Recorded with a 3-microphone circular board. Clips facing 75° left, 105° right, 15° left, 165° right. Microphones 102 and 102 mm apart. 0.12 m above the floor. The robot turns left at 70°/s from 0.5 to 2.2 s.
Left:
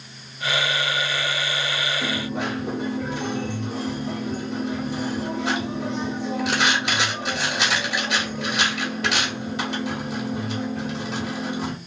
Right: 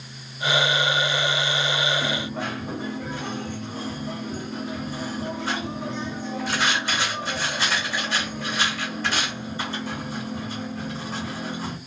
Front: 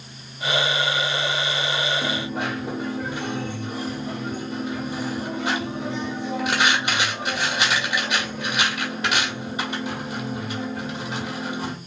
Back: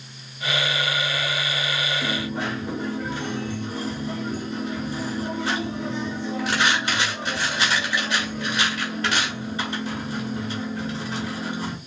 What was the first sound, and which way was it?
A dropped coin, 105° left.